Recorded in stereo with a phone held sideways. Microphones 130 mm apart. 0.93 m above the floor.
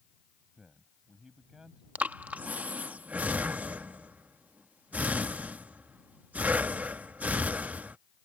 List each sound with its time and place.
0.6 s a man speaking: 5° right (ahead or behind)
1.9 s breathing: 10° right (ahead or behind)